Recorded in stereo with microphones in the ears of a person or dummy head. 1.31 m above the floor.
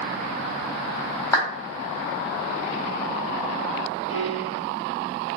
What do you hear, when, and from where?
1.3 s a clap: 15° left (ahead or behind), 1.7 m
4.1 s a piano: 40° left (ahead or behind), 1.1 m